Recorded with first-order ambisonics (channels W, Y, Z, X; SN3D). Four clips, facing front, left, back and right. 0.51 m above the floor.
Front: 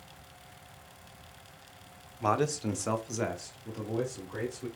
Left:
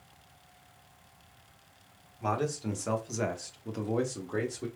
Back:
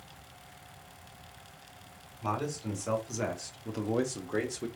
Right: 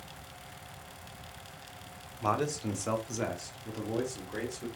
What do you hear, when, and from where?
2.2 s a man speaking: 15° right, 0.9 m; by 4.7 s 155° left, 1.1 m